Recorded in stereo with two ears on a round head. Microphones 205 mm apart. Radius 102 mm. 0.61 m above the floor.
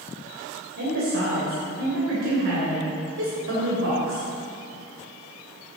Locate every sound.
0.8 s a woman speaking: 60° right (ahead or behind), 3 m